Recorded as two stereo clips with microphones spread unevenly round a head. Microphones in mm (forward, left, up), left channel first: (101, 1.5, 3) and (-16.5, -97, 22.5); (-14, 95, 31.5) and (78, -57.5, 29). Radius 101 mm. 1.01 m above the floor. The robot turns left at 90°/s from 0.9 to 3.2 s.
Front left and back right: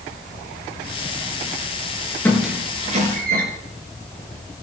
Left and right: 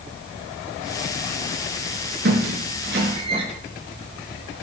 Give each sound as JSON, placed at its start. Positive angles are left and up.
{"t": 2.2, "sound": "a squeak", "azimuth_deg": -40, "distance_m": 4.5}